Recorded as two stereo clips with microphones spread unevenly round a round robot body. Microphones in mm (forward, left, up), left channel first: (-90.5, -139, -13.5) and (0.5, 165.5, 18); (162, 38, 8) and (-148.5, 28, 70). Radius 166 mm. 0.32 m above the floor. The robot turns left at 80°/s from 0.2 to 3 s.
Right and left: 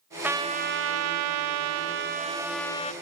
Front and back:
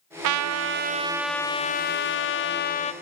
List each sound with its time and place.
0.2 s a trumpet: 165° left, 0.5 m; by 2.9 s 50° right, 0.5 m